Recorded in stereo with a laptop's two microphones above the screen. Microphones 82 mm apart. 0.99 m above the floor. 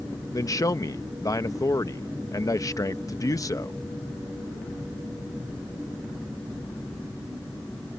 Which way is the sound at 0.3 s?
45° left (ahead or behind).